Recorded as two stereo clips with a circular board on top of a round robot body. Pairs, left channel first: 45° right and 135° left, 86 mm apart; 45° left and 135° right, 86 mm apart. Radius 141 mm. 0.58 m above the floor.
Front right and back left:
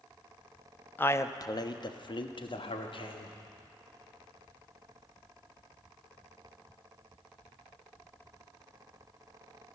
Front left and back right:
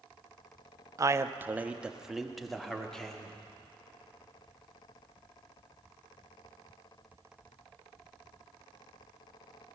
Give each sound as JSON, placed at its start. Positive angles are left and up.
{"t": 1.0, "sound": "a man speaking", "azimuth_deg": -105, "distance_m": 0.7}